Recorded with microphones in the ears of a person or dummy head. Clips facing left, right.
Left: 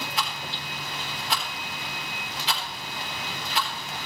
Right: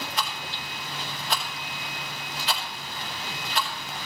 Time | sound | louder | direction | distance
0.2 | a rattle | even | centre (ahead or behind) | 3.5 m